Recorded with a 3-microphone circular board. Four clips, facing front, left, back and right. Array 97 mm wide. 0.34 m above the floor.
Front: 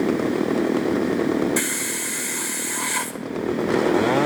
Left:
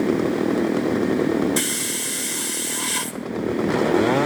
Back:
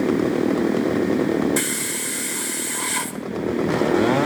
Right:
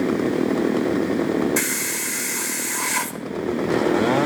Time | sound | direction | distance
1.6 | a hiss | 80° right | 0.9 m